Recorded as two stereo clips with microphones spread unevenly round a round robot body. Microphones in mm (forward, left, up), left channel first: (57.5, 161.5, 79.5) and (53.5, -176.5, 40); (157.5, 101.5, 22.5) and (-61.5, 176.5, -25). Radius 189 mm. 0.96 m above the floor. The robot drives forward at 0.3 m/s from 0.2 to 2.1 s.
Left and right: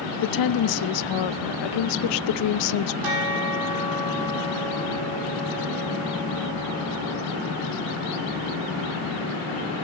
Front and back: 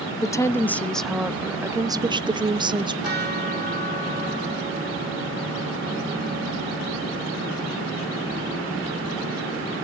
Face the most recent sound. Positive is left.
turn(degrees=-110)